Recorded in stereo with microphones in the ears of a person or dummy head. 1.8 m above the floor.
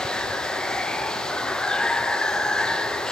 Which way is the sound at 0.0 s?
5° left (ahead or behind).